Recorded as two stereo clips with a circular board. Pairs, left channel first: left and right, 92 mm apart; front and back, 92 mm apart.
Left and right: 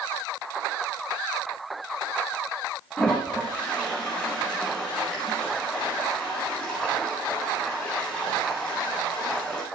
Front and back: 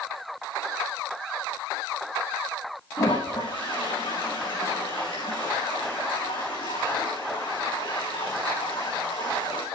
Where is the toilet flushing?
10° left, 7.5 m.